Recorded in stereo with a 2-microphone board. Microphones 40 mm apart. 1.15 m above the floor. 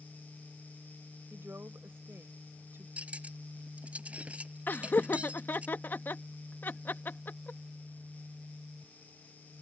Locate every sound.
1.3 s a woman speaking: 75° right (ahead or behind)
3.0 s cutlery clinking: 35° right (ahead or behind)
4.7 s laughter: 50° left (ahead or behind)